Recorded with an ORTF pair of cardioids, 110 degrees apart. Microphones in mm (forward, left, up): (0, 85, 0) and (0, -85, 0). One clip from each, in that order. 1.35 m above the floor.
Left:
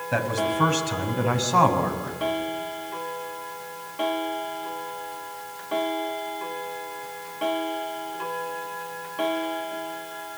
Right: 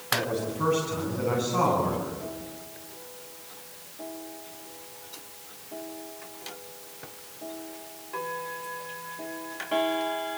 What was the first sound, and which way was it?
A man speaking, 60° left.